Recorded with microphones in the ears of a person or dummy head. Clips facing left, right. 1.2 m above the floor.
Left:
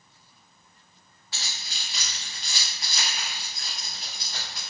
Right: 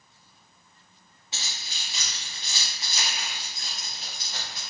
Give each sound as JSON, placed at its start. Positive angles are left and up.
{"t": 1.3, "sound": "keys jangling", "side_deg": -20, "distance_m": 1.5}